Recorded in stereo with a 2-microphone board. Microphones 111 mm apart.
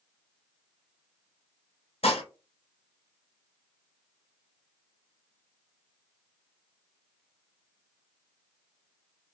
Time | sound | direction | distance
2.0 | dishes clattering | 60° left (ahead or behind) | 0.7 m